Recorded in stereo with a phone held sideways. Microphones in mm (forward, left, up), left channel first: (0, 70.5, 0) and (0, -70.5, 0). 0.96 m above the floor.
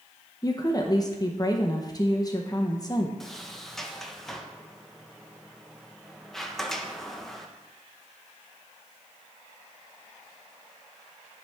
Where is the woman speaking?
30° left (ahead or behind), 0.7 m.